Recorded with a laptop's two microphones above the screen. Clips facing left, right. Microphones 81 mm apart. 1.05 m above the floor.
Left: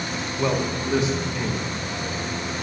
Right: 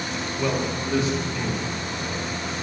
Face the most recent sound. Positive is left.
turn(degrees=20)  # may be behind; listen again after turning